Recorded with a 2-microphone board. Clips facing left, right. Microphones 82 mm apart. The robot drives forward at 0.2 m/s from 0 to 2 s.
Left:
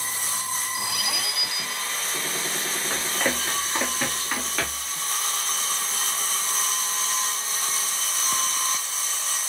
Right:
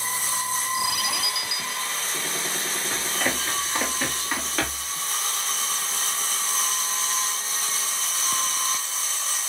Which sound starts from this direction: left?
Running footsteps, at 2.9 s.